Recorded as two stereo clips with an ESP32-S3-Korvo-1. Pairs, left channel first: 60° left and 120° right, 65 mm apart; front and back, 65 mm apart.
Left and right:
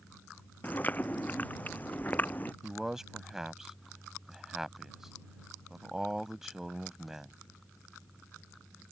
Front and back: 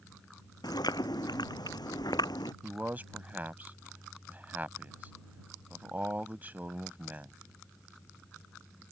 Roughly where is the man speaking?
Behind.